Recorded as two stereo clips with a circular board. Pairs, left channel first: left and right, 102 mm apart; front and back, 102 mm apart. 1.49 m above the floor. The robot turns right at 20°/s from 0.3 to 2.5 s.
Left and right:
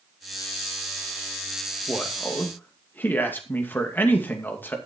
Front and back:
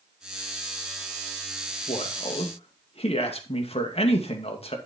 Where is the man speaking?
5° left, 2.5 m; by 4.8 s 15° left, 2.5 m.